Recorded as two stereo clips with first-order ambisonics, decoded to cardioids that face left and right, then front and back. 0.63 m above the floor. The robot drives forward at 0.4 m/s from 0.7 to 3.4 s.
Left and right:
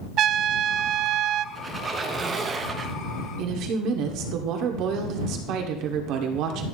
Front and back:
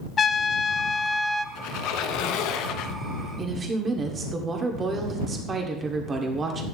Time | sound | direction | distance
0.2 | a trumpet | 60° right | 0.6 m
1.6 | a squeak | 15° right | 1.3 m
3.4 | a woman speaking | 115° right | 1.9 m